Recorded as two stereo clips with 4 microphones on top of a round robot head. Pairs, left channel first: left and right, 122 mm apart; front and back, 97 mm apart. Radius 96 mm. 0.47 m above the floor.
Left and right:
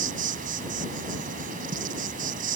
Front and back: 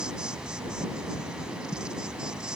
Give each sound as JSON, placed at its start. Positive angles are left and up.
{"t": 0.0, "sound": "an insect", "azimuth_deg": -95}